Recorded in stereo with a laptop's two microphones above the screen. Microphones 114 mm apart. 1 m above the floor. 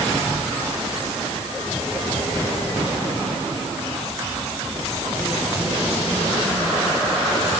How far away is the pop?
No pop in this recording.